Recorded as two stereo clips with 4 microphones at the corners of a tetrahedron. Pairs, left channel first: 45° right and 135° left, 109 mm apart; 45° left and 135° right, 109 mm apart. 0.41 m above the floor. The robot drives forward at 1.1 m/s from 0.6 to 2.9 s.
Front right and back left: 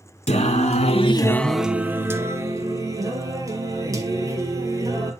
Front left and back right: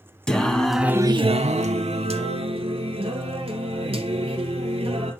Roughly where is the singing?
Ahead right.